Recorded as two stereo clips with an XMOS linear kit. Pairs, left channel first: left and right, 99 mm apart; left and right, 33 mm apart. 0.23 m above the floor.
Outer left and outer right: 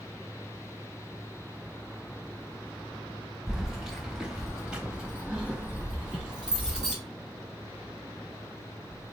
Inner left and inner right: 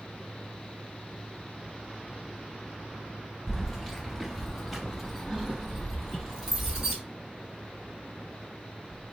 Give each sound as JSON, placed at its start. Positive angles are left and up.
{"t": 3.5, "sound": "keys jangling", "side_deg": 0, "distance_m": 0.9}